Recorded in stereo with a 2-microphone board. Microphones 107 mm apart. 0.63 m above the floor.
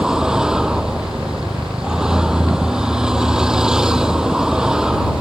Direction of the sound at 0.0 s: 5° right (ahead or behind).